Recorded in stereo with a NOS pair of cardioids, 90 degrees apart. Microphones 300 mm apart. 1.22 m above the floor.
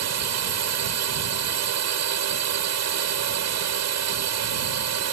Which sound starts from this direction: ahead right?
A drone, at 0.0 s.